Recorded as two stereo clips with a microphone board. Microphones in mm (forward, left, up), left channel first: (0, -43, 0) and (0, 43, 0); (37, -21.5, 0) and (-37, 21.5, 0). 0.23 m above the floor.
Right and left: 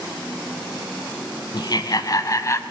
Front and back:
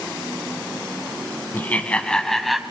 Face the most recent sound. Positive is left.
turn(degrees=-125)